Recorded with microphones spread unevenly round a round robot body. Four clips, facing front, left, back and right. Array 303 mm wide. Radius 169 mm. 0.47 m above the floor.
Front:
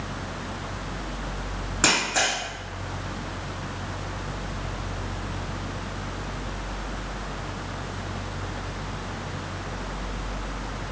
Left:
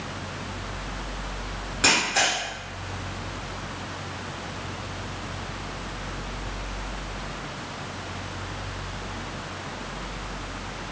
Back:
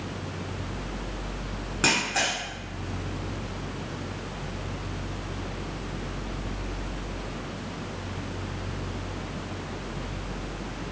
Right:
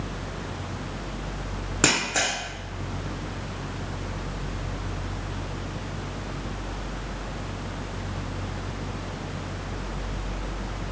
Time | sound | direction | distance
1.8 | a camera shutter | 80° right | 1.3 m